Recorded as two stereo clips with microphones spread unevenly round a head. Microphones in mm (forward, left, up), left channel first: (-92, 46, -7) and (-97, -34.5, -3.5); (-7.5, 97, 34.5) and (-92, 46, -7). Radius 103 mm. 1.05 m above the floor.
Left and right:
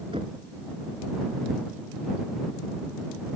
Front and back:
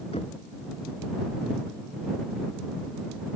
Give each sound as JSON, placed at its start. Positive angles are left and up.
{"t": 0.1, "sound": "knocking", "azimuth_deg": -30}